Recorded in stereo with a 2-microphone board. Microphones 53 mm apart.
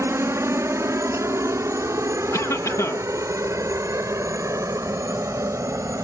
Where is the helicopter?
60° right (ahead or behind); by 6.0 s 75° right (ahead or behind).